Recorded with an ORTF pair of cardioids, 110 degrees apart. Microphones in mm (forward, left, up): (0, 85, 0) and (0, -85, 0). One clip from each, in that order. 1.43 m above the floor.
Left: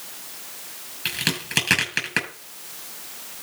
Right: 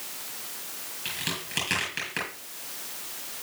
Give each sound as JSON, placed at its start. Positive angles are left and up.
{"t": 1.1, "sound": "a crack", "azimuth_deg": 55, "distance_m": 6.5}